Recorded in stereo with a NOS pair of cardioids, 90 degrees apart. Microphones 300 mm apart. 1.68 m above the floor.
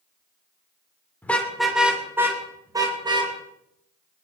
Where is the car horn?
5° left, 3 m; by 3.3 s 15° right, 5 m.